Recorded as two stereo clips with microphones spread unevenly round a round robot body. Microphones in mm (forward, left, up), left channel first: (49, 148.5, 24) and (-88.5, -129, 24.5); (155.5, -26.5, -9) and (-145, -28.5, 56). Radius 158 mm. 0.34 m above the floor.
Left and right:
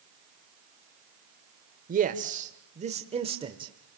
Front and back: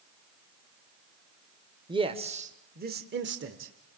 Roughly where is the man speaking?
Right.